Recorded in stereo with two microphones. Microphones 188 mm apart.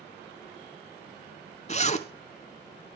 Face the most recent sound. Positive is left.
turn(degrees=40)  # may be behind; listen again after turning